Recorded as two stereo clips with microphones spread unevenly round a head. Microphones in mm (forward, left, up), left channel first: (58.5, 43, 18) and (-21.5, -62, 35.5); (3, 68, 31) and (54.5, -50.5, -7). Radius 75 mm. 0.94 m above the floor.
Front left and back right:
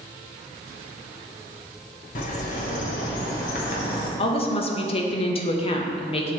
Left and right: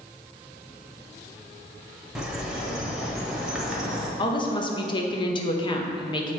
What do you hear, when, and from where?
2.1 s a bird: 25° left, 1.3 m
4.2 s a woman speaking: 55° left, 0.9 m